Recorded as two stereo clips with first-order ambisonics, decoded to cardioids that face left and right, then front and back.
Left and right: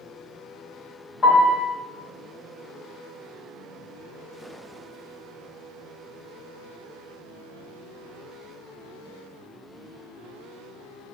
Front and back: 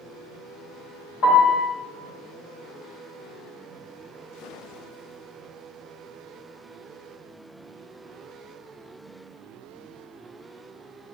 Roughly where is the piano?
Ahead.